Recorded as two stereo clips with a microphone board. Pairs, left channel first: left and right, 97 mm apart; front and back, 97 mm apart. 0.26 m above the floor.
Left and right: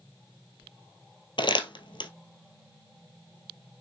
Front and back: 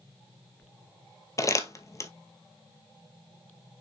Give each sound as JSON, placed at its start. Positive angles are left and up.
{"t": 1.4, "sound": "crumpling", "azimuth_deg": 55, "distance_m": 1.0}